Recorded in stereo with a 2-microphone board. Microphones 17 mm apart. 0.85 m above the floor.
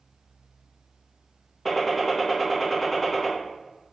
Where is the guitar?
No guitar in this recording.